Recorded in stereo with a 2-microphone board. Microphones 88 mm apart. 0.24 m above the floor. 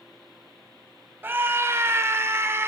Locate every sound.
1.2 s a scream: 25° right (ahead or behind), 1.1 m; by 2.7 s 30° right (ahead or behind), 1.6 m